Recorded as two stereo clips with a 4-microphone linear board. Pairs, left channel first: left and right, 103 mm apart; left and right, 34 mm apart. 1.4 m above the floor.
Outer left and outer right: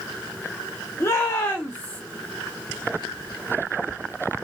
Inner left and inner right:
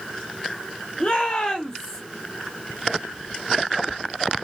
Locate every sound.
1.0 s a shout: 30° left (ahead or behind), 1.4 m; by 2.0 s 10° left (ahead or behind), 1.0 m